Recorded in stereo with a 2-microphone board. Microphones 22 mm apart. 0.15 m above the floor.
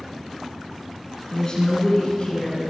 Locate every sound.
1.3 s a woman speaking: 30° left (ahead or behind), 1.7 m; by 2.6 s 50° left (ahead or behind), 2 m